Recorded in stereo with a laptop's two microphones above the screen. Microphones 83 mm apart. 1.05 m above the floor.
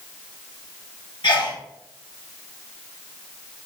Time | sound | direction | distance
1.2 | a sneeze | 75° left (ahead or behind) | 1.0 m